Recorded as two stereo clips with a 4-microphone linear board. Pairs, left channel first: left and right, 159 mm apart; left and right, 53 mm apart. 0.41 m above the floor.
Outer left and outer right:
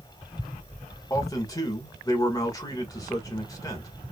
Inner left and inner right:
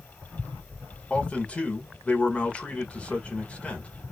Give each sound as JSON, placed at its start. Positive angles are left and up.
{"t": 1.1, "sound": "a man speaking", "side_deg": 25, "distance_m": 1.0}